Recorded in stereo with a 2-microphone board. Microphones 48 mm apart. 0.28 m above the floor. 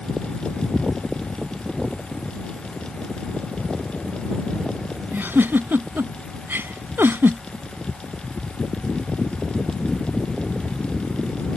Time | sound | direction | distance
5.1 | a giggle | 50° right (ahead or behind) | ?